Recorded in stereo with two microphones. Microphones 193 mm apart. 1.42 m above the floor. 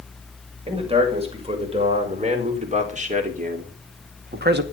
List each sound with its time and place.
0.7 s a man speaking: 30° right (ahead or behind), 6.5 m; by 4.6 s 60° right (ahead or behind), 2.0 m